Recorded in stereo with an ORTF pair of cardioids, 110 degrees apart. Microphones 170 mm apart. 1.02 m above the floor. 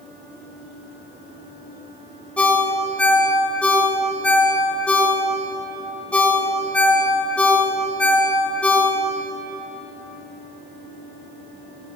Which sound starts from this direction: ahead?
A ringtone, at 2.4 s.